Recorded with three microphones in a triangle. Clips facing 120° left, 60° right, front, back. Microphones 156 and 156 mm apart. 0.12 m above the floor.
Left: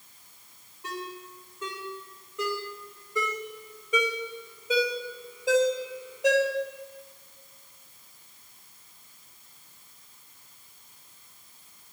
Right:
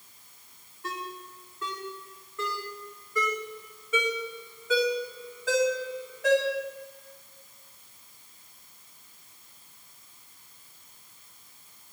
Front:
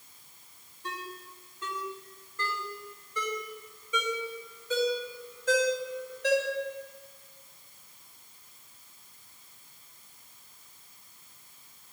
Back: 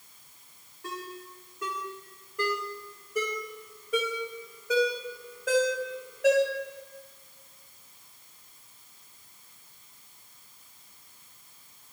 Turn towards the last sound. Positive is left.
turn(degrees=-170)